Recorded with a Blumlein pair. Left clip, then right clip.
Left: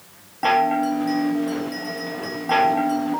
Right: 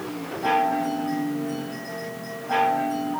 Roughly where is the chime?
Ahead left.